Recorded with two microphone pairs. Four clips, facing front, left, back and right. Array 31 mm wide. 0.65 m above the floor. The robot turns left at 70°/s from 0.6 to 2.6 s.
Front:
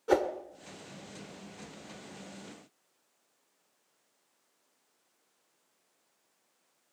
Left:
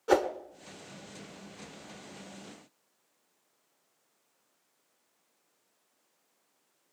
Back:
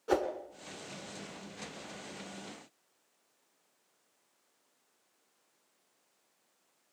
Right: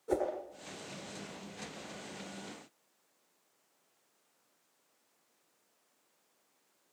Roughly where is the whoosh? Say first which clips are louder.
Left 7 dB, front 3 dB; left.